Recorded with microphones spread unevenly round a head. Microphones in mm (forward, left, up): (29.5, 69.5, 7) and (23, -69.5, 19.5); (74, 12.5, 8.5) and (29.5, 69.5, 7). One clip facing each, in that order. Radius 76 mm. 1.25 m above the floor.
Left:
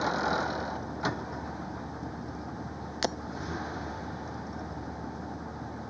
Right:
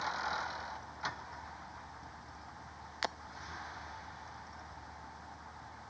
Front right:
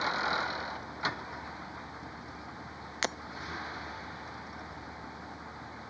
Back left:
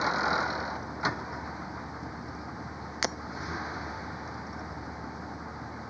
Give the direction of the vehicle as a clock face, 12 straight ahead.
10 o'clock.